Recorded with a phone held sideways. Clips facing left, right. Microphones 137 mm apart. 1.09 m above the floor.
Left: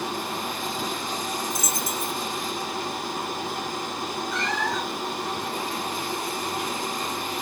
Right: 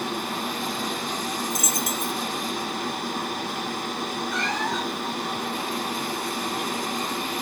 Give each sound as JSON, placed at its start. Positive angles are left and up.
{"t": 0.0, "sound": "a machine running", "side_deg": -65, "distance_m": 2.5}
{"t": 1.5, "sound": "a dropped coin", "side_deg": 30, "distance_m": 1.0}
{"t": 4.3, "sound": "a cat meowing", "side_deg": 0, "distance_m": 0.8}